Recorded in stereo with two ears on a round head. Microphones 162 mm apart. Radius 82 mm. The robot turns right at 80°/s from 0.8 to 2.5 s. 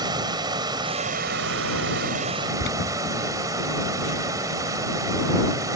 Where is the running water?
155° right; by 5.8 s 20° right.